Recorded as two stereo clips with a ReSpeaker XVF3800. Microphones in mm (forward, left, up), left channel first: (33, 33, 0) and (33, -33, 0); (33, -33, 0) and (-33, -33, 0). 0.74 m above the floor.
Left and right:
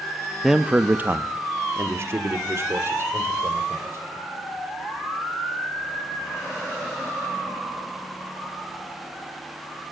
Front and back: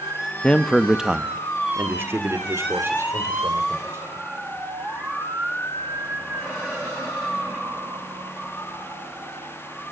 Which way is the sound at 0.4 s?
10° right.